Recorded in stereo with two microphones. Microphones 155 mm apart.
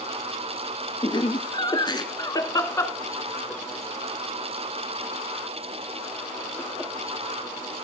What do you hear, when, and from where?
1.0 s laughter: 35° left (ahead or behind), 1.8 m; by 6.9 s 15° right (ahead or behind), 3.5 m